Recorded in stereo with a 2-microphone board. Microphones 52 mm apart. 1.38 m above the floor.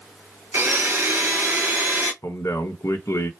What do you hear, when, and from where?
0.5 s a blender: 40° right (ahead or behind), 1.5 m
2.2 s a man speaking: 75° left (ahead or behind), 1.0 m